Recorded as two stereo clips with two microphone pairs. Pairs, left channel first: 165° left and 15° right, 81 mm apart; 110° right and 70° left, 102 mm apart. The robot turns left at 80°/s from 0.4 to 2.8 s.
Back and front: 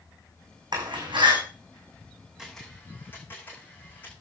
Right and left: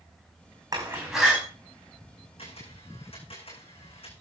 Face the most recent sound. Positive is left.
turn(degrees=-125)